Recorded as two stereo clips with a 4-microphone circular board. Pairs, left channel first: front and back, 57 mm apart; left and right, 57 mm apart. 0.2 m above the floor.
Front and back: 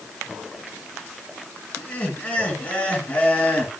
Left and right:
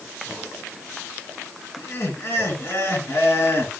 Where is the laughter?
65° left, 3 m.